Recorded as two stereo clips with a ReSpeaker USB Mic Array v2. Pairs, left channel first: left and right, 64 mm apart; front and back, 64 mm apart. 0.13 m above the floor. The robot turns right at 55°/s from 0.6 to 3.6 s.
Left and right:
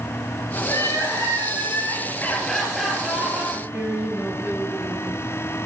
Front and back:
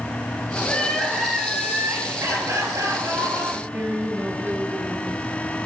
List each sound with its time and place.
0.6 s crying: 60° left, 3 m; by 3.4 s 145° right, 3 m
3.5 s a woman speaking: 145° right, 2.5 m; by 5.2 s 140° right, 2.5 m